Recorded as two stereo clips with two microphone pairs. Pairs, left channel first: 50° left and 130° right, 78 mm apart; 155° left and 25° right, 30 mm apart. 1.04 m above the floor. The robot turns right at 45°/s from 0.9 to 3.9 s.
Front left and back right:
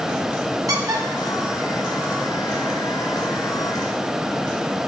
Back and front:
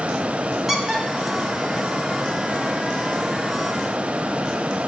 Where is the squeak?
95° right, 1.3 m; by 2.6 s 20° right, 1.3 m.